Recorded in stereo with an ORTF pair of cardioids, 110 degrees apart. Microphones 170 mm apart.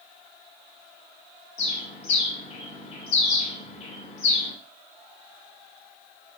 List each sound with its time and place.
1.6 s a bird: 45° left, 1.5 m